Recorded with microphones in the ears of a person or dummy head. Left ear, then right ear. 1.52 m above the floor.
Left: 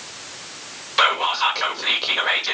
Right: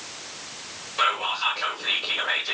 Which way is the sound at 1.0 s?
65° left (ahead or behind).